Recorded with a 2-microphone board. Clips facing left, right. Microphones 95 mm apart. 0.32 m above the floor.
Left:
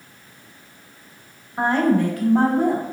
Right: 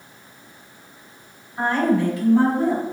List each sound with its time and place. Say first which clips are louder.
1.6 s a woman speaking: left 1 dB; 35° left (ahead or behind), 1.6 m; by 2.8 s 55° left (ahead or behind), 2.5 m